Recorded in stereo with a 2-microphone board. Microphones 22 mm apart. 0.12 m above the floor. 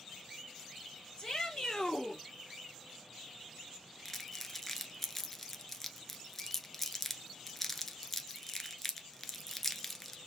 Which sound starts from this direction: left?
A shout, at 1.2 s.